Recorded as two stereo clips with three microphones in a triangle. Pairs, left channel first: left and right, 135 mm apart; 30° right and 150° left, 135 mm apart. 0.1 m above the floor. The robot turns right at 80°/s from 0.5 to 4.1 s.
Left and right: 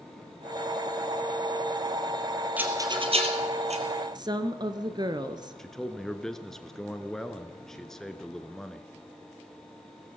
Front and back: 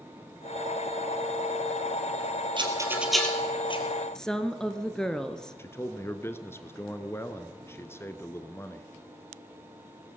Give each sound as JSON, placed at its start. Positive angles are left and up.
{"t": 2.6, "sound": "a rattle", "azimuth_deg": -165, "distance_m": 2.5}
{"t": 4.2, "sound": "a woman speaking", "azimuth_deg": -115, "distance_m": 1.3}
{"t": 5.6, "sound": "a man speaking", "azimuth_deg": 5, "distance_m": 1.2}